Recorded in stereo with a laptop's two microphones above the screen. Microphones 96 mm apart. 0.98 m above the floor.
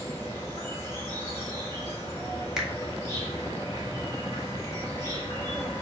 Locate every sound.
0.0 s an insect: 30° left (ahead or behind), 2.5 m
2.6 s a finger snap: 5° right (ahead or behind), 1.4 m